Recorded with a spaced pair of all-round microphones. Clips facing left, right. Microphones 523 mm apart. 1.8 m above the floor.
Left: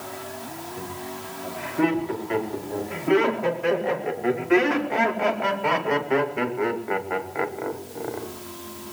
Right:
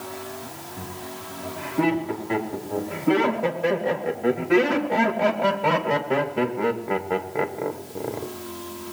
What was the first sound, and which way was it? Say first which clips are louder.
Laughter: even; 60° right (ahead or behind).